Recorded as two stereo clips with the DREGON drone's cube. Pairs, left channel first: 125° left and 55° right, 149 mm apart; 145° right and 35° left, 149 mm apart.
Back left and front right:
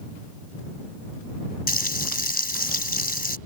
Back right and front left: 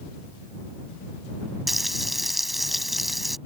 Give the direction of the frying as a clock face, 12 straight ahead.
8 o'clock.